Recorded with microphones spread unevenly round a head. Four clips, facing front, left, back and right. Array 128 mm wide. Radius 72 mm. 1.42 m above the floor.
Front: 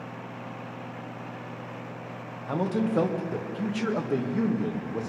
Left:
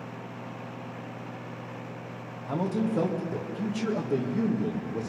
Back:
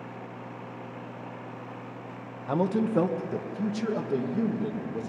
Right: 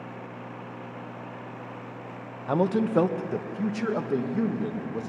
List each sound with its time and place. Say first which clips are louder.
2.5 s a man speaking: right 5 dB, back 1 dB; 75° right, 1.5 m; by 5.1 s 30° right, 2.5 m